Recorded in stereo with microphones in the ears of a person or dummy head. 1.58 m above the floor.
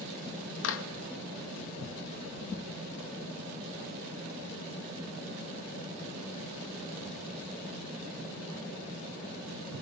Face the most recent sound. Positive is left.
turn(degrees=70)  # may be behind; listen again after turning